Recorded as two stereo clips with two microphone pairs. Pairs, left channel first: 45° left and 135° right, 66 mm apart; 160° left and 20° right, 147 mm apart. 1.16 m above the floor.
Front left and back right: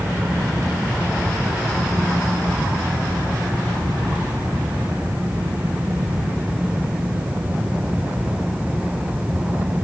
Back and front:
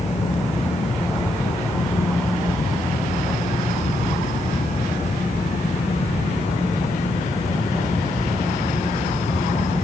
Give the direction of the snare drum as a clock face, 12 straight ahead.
I don't hear a snare drum.